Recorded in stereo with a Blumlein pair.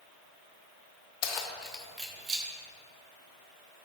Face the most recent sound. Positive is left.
turn(degrees=-25)